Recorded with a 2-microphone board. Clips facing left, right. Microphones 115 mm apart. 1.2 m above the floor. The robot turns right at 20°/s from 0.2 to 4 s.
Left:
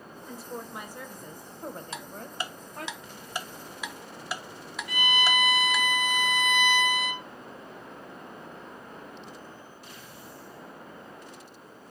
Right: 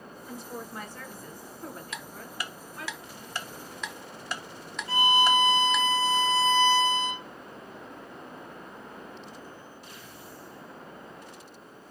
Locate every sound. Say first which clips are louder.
0.3 s a woman speaking: even; straight ahead, 0.9 m; by 2.9 s 55° left, 0.9 m
1.9 s ticking: left 2 dB; 30° left (ahead or behind), 0.6 m; by 5.9 s 5° left (ahead or behind), 0.6 m
4.9 s a violin: right 5 dB; 30° right (ahead or behind), 0.6 m